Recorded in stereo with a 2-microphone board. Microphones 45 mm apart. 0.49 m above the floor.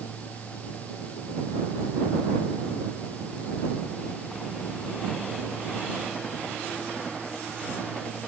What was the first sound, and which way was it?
Only background noise.